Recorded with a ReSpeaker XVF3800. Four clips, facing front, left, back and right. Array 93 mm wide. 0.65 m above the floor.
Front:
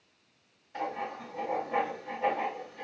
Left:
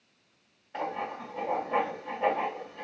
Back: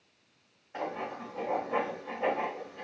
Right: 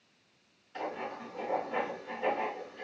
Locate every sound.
0.7 s writing: 120° left, 1.6 m